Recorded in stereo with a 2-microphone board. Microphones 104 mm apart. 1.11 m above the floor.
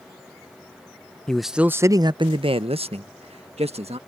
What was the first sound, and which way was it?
A man speaking, 5° left (ahead or behind).